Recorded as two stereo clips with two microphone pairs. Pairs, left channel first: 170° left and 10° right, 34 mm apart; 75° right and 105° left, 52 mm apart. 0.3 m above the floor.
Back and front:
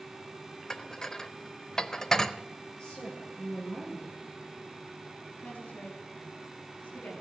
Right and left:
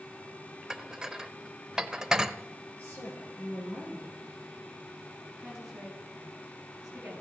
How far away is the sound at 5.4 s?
About 6 m.